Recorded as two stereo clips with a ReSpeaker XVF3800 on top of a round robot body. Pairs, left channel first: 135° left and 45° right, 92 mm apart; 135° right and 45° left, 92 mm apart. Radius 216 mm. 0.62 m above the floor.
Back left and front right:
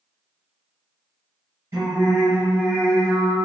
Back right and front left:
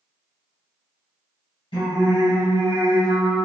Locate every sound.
1.7 s singing: 105° right, 1.6 m